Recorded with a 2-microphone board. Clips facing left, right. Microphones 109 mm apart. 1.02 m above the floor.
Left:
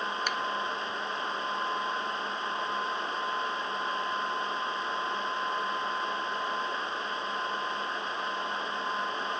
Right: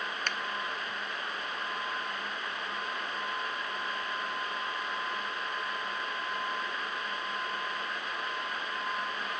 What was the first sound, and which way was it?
A finger snap, 10° left (ahead or behind).